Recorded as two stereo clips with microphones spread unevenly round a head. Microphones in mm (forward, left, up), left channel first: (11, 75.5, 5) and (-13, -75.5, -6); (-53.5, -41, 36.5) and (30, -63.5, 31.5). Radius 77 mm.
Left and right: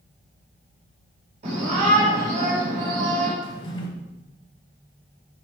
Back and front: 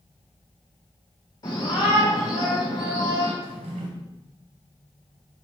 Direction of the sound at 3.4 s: 20° left.